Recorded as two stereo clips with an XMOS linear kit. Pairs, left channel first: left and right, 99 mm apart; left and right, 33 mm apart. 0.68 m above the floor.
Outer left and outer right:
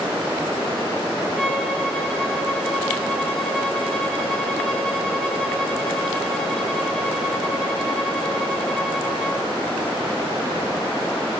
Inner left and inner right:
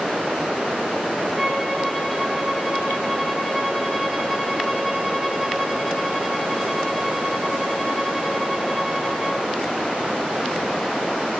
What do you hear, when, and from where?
1.4 s a violin: 10° left (ahead or behind), 1.5 m